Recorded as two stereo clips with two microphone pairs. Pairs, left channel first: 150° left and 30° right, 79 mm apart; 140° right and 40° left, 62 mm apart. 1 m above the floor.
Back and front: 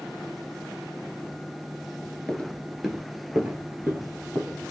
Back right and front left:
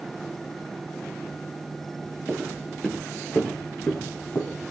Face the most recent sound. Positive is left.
turn(degrees=-85)